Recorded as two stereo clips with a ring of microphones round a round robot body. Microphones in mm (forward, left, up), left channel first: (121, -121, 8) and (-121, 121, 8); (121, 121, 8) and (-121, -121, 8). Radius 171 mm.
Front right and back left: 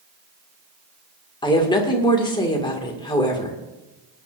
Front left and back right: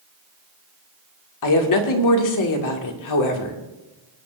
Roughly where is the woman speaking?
Ahead left.